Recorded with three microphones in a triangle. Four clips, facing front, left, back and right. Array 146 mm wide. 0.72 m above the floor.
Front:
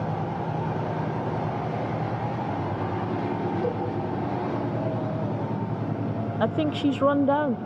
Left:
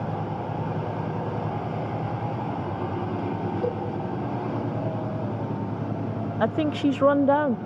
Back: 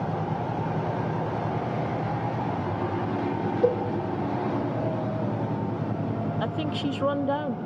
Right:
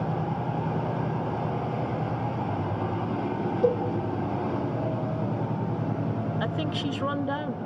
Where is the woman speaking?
55° left, 0.6 m.